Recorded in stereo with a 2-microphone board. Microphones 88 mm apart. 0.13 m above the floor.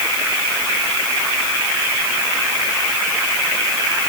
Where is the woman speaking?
No woman speaking in this recording.